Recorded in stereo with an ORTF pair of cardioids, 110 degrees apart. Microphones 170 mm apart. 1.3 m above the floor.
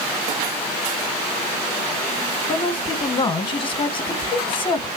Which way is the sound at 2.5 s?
30° left.